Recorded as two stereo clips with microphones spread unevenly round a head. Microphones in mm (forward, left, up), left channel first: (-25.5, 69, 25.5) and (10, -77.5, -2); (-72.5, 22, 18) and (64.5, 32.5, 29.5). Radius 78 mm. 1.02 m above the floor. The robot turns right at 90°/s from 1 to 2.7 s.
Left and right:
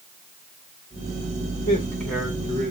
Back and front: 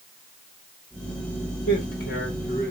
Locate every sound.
1.7 s a man speaking: 155° left, 3.5 m; by 2.7 s 110° right, 3.5 m